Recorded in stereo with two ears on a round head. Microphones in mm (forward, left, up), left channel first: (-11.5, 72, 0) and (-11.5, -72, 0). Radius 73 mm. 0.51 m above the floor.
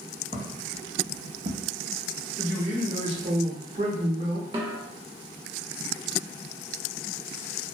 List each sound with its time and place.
0.3 s footsteps: 30° right (ahead or behind), 1.1 m; by 1.7 s 35° right (ahead or behind), 0.7 m
2.4 s a man speaking: 40° right (ahead or behind), 1.1 m
4.5 s a snare drum: 25° right (ahead or behind), 0.6 m